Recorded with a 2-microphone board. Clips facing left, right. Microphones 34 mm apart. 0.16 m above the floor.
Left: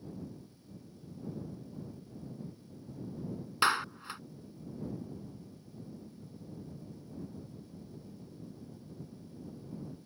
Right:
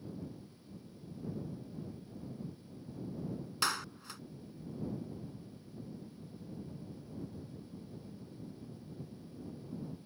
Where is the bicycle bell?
No bicycle bell in this recording.